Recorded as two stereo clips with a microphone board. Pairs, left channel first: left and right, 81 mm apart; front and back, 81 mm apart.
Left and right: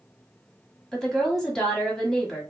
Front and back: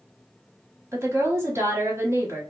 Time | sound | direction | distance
0.9 | a woman speaking | 170° left | 1.3 m